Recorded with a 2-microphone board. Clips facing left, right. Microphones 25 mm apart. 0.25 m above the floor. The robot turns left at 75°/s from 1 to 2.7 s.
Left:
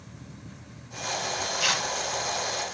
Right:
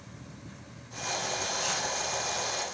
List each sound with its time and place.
1.6 s tearing paper: 55° left (ahead or behind), 0.8 m; by 1.9 s 50° left (ahead or behind), 0.8 m